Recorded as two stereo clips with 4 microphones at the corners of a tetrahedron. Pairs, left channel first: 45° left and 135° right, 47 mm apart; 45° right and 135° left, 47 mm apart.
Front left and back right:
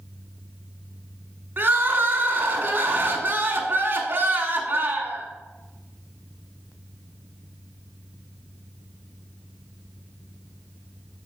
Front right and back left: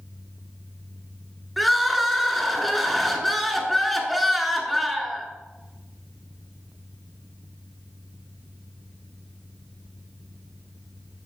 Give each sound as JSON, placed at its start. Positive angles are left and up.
{"t": 1.6, "sound": "crying", "azimuth_deg": -130, "distance_m": 1.0}